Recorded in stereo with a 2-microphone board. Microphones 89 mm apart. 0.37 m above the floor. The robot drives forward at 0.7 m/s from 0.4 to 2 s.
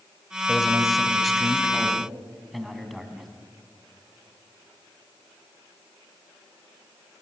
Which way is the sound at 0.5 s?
Centre (ahead or behind).